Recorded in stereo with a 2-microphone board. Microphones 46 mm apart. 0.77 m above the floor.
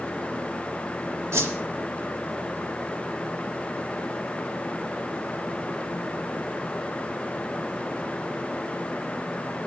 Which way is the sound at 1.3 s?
70° right (ahead or behind).